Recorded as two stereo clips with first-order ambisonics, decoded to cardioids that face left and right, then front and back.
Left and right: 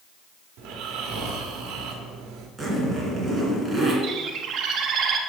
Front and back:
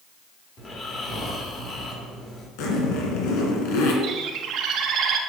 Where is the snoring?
65° right, 1.3 m.